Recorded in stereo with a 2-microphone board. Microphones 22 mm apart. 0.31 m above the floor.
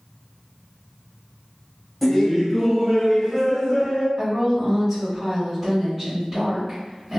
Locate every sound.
2.0 s laughter: 10° left (ahead or behind), 1.1 m; by 4.1 s 10° right (ahead or behind), 1.2 m
4.2 s a woman speaking: 5° right (ahead or behind), 1.4 m